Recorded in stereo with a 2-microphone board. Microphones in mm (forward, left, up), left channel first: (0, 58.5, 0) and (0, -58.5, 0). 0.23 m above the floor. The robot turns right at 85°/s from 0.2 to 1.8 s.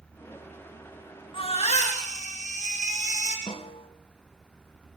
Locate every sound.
1.3 s a baby crying: 45° left, 6 m; by 3.4 s 85° left, 6 m
3.5 s a snare drum: 50° left (ahead or behind), 2 m